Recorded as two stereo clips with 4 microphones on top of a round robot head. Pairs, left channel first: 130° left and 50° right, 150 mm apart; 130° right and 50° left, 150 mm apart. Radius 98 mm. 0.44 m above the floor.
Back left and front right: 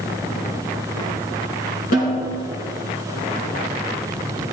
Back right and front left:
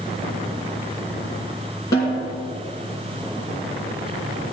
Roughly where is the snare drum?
Behind.